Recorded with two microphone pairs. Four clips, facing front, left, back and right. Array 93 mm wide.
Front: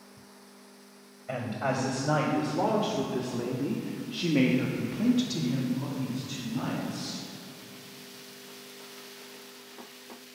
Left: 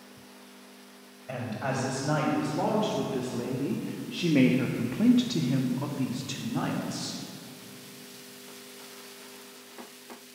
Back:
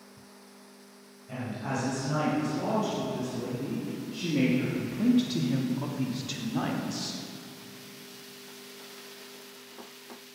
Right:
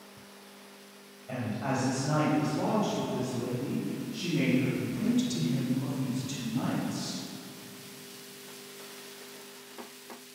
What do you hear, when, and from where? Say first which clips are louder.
1.3 s a woman speaking: even, front 4 dB; 15° left, 4 m; by 7.2 s 145° left, 3 m